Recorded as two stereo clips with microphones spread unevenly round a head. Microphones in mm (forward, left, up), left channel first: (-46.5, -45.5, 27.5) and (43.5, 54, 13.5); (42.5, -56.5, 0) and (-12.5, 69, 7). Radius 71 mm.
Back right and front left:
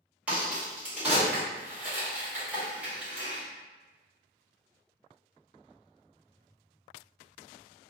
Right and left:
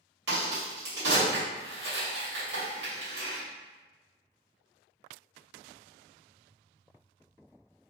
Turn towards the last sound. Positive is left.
turn(degrees=125)